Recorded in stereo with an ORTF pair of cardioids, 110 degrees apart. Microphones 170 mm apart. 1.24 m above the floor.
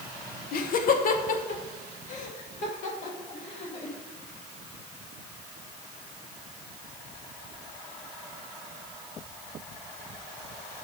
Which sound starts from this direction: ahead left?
Laughter, at 0.5 s.